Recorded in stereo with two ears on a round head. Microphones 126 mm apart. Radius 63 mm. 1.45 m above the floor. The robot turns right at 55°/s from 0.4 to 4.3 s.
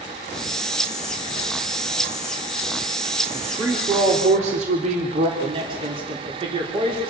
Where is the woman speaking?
Straight behind, 3.5 m; by 5.3 s 130° right, 3.5 m.